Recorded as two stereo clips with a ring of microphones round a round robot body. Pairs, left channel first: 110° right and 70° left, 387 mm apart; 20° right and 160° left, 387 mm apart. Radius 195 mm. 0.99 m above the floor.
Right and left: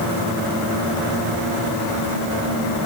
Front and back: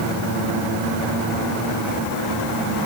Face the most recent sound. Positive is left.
No sound to turn to.